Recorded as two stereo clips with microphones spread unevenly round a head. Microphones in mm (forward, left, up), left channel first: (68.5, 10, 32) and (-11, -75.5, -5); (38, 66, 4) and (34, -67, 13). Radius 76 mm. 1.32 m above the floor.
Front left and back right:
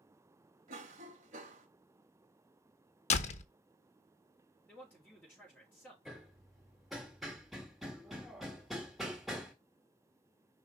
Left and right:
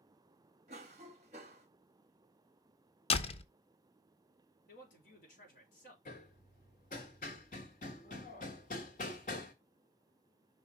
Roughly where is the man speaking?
Behind left.